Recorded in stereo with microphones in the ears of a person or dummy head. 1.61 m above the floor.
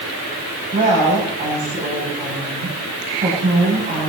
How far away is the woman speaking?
About 9.5 m.